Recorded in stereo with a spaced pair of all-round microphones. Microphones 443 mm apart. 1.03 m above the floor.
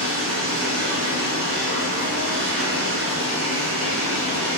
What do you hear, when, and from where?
0.0 s running water: 25° right (ahead or behind), 1.2 m